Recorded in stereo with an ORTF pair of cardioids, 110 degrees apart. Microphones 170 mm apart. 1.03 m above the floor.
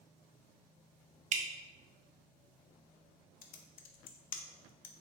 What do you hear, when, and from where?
1.3 s dripping: 50° right, 0.6 m
3.4 s typing on a keyboard: 55° left, 0.5 m